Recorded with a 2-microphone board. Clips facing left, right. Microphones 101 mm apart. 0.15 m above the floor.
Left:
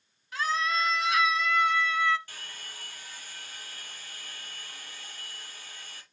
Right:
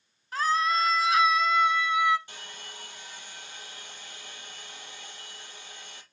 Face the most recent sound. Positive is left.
turn(degrees=-20)  # may be behind; listen again after turning